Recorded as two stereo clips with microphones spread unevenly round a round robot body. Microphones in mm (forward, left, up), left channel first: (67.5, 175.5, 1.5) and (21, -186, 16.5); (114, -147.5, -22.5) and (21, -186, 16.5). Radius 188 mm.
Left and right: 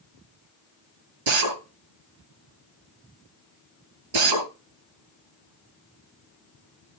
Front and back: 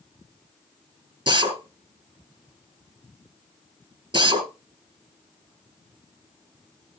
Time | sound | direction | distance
1.3 | a drill | 115° right | 4.5 m